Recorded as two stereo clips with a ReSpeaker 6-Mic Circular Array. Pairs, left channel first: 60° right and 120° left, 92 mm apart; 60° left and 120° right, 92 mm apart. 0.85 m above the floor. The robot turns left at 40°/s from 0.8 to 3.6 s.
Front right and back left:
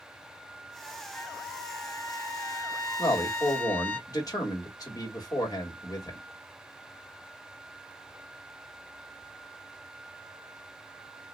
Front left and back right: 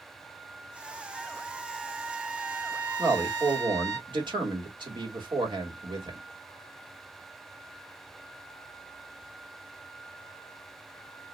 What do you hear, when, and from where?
1.1 s a trumpet: 5° right, 1.0 m; by 4.0 s 105° right, 1.0 m
3.0 s a man speaking: 75° right, 1.5 m; by 6.2 s 100° right, 1.5 m